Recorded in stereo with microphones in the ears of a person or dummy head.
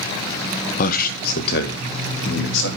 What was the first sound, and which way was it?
A man speaking, 45° left (ahead or behind).